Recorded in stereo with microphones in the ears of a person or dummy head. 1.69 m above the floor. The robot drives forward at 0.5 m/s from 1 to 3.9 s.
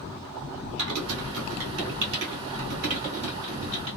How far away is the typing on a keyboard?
About 1.2 m.